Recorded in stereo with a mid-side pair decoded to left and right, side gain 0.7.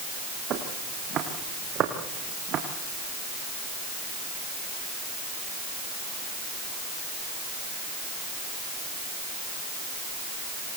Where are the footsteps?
45° right, 5.5 m.